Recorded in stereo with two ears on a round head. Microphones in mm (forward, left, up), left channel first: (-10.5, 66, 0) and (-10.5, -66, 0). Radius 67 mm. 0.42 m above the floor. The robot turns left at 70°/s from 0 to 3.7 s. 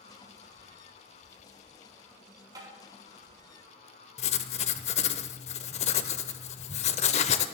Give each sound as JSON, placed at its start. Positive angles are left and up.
{"t": 2.5, "sound": "tapping", "side_deg": -25, "distance_m": 5.0}
{"t": 4.2, "sound": "writing", "side_deg": 45, "distance_m": 0.7}